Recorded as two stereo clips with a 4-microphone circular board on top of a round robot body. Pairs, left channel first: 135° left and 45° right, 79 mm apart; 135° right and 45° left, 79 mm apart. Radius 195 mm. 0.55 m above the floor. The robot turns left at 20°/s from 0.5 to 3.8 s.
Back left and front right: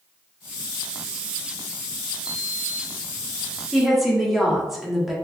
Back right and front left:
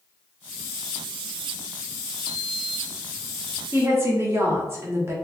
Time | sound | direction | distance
2.2 | a sliding door | 40° left | 0.7 m
3.7 | a woman speaking | 45° left | 1.3 m